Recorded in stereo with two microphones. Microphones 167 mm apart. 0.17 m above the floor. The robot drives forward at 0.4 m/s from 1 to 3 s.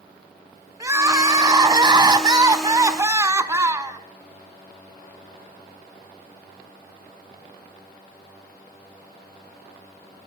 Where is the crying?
20° right (ahead or behind), 0.6 m.